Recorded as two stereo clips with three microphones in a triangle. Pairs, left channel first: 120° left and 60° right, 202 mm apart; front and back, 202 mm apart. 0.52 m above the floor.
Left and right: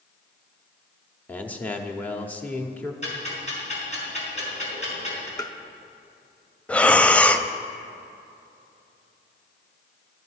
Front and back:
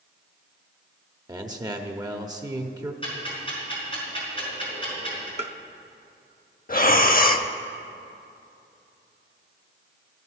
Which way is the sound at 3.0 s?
65° left.